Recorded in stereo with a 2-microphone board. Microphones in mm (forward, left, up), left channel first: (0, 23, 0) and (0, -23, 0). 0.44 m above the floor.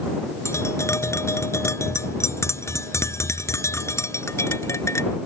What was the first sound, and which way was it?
Tapping, 80° left.